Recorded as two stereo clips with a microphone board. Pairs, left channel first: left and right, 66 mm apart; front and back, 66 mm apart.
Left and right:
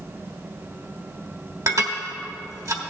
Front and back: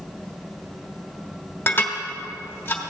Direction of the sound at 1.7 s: 60° right.